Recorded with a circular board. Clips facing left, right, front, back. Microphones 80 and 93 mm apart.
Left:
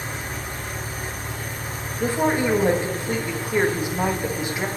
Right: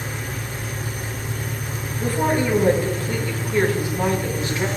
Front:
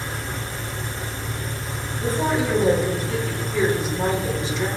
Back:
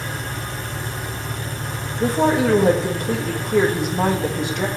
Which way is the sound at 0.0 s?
145° left.